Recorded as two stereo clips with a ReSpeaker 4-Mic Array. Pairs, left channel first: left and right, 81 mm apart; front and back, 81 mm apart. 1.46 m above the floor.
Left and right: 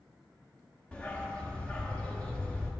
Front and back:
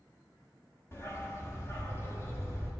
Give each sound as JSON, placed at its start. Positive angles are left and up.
{"t": 0.9, "sound": "a dog barking", "azimuth_deg": 25, "distance_m": 1.0}